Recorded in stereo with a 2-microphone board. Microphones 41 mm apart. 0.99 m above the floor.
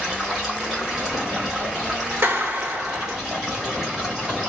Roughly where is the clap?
Right.